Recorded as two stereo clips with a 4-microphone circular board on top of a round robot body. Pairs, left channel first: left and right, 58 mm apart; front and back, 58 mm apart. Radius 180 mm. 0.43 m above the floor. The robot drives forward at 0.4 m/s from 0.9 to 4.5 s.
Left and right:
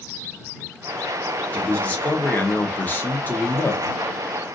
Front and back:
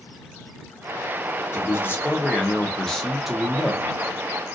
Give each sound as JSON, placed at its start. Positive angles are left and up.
{"t": 1.5, "sound": "a man speaking", "azimuth_deg": 30, "distance_m": 1.1}